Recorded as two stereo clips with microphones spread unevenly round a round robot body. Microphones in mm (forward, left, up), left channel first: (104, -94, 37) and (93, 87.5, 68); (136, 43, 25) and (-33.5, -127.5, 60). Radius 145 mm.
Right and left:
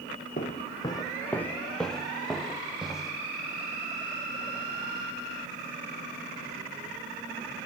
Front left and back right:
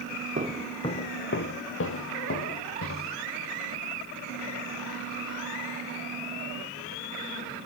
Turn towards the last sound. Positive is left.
turn(degrees=10)